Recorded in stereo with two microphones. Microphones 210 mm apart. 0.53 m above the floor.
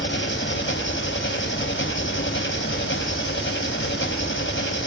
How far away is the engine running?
About 3 m.